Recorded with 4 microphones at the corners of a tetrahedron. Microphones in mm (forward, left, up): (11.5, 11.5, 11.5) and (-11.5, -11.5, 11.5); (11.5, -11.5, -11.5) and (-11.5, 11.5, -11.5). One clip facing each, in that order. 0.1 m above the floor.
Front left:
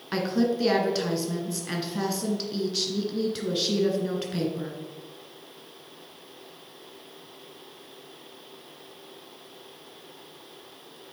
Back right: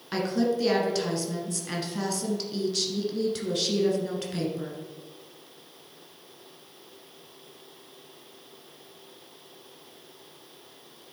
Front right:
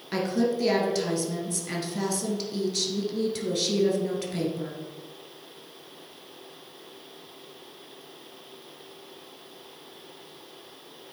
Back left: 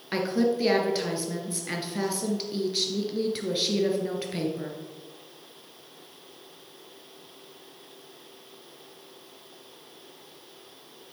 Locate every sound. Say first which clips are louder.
0.1 s a woman speaking: front left 1 dB, back left 1 dB; 105° left, 1.5 m